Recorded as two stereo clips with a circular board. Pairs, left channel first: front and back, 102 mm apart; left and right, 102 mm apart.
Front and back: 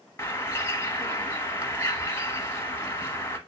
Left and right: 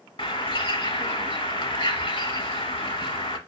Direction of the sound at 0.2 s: 65° left.